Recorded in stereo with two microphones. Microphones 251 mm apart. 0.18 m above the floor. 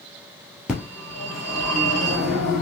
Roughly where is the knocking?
No knocking in this recording.